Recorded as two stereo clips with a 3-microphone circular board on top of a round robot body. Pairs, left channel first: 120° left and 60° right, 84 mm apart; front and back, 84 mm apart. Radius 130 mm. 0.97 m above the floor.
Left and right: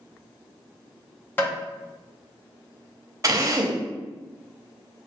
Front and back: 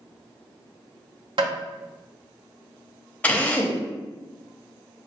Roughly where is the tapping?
Behind.